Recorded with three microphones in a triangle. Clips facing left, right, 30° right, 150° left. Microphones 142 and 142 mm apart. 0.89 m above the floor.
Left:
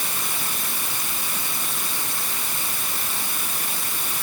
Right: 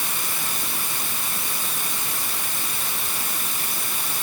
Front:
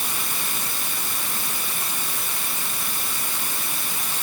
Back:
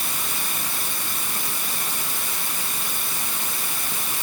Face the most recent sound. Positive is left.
No sound to turn to.